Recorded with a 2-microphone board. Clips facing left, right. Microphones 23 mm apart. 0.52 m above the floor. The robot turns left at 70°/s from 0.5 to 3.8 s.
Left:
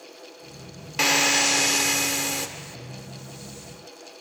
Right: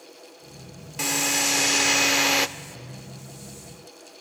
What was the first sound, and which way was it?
A drill, 45° left.